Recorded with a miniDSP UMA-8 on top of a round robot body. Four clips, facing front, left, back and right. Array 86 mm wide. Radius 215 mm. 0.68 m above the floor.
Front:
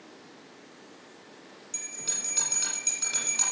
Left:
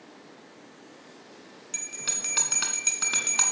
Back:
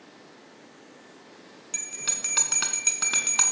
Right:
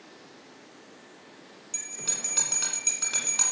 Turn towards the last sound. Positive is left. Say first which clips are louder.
# left 1 dB, back 4 dB
turn(degrees=155)